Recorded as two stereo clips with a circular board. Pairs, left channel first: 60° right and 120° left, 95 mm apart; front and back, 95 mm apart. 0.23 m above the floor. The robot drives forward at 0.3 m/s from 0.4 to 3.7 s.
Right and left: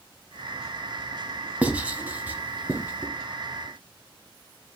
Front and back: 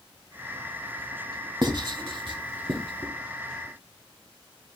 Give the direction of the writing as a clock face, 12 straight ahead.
6 o'clock.